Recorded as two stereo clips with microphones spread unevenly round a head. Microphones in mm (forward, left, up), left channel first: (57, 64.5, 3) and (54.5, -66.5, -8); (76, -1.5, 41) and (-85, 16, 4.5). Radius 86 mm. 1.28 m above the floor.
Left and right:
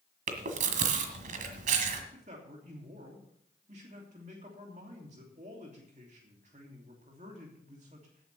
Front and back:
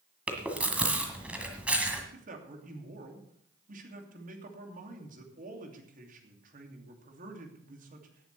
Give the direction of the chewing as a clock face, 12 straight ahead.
3 o'clock.